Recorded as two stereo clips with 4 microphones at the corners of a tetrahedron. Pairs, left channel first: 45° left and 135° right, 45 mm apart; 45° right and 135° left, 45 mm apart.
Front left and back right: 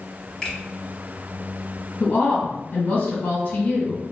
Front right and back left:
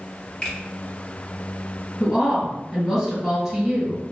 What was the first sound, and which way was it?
A finger snap, 15° right.